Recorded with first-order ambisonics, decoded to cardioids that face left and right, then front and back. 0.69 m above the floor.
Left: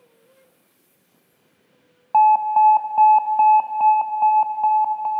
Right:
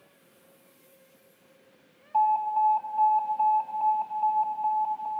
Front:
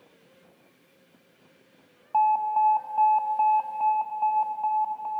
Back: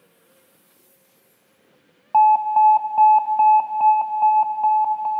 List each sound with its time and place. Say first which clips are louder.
2.1 s an alarm: left 9 dB, back 8 dB; 120° left, 0.5 m